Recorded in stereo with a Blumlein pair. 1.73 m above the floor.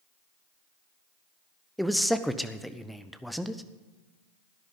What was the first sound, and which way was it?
A man speaking, straight ahead.